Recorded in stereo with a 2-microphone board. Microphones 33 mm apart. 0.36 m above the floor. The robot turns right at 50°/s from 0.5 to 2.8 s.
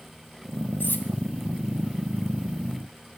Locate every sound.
0.8 s cutlery clinking: 70° left (ahead or behind), 1.4 m